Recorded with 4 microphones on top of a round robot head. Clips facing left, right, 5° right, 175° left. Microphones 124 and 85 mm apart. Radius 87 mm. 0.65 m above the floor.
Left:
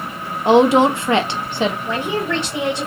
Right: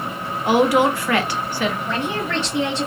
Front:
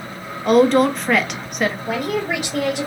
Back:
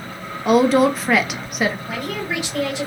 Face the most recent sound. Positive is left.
turn(degrees=25)